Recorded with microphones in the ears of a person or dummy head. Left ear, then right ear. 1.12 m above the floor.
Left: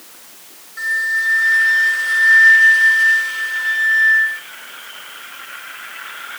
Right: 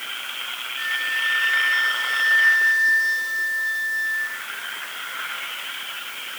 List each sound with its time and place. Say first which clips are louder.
0.8 s a flute: left 6 dB; 25° left (ahead or behind), 3 m